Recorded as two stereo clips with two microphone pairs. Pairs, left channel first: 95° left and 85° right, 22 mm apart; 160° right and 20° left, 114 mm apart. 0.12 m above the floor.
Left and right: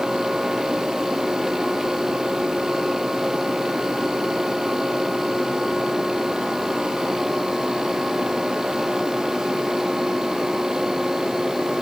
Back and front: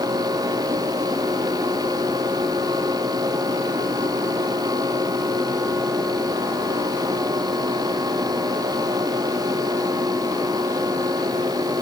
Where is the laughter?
I don't hear laughter.